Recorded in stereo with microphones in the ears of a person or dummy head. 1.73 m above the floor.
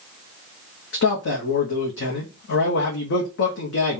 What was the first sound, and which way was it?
A man speaking, 65° left (ahead or behind).